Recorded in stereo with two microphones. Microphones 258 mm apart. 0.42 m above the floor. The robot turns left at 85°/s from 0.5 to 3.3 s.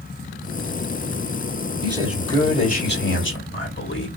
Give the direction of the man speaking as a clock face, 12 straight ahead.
5 o'clock.